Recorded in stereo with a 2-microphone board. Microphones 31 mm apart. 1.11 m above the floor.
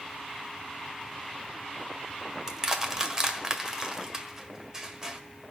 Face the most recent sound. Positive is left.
turn(degrees=-15)  # may be behind; listen again after turning